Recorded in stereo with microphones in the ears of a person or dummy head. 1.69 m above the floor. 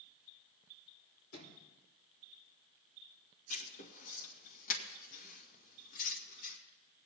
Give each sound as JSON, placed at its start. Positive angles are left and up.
{"t": 1.3, "sound": "a sliding door", "side_deg": 60, "distance_m": 4.0}
{"t": 3.5, "sound": "writing", "side_deg": 55, "distance_m": 2.0}